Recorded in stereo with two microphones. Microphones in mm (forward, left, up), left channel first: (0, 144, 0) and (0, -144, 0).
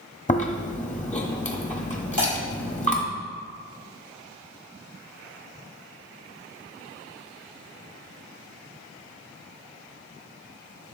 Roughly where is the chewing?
Left.